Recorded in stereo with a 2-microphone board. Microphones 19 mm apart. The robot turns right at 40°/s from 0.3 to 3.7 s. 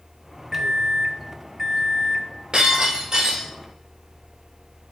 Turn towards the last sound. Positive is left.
turn(degrees=-5)